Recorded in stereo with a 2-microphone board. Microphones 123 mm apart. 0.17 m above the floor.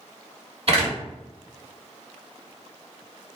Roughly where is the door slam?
Right.